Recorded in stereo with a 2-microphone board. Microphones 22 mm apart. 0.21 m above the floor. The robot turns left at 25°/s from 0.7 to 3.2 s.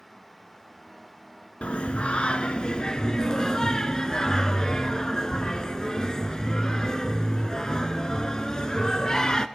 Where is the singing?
75° left, 0.5 m; by 9.5 s 35° left, 0.5 m.